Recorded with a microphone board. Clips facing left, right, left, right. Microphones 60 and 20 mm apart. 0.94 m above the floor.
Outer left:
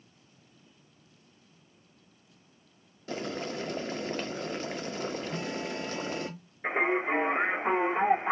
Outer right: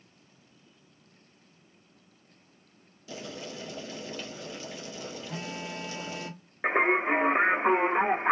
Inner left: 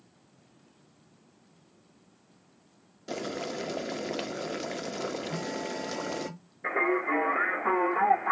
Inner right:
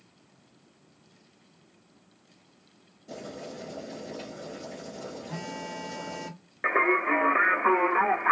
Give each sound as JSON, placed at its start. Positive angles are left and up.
{"t": 3.1, "sound": "boiling", "side_deg": 50, "distance_m": 0.5}
{"t": 5.3, "sound": "a phone buzzing", "side_deg": -70, "distance_m": 1.3}
{"t": 6.6, "sound": "singing", "side_deg": -60, "distance_m": 1.1}